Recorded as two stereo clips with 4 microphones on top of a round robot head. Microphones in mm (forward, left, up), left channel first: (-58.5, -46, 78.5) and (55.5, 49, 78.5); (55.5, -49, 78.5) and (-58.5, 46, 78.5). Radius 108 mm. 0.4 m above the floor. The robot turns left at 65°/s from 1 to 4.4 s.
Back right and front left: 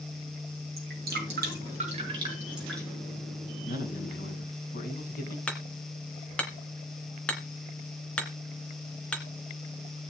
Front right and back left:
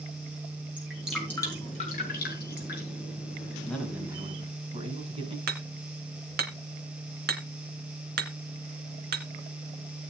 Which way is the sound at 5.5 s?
140° left.